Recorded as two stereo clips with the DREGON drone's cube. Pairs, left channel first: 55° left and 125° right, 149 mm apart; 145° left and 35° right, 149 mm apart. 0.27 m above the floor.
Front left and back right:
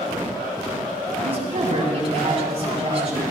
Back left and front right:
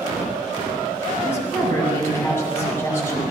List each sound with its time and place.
1.2 s a woman speaking: 145° right, 2.0 m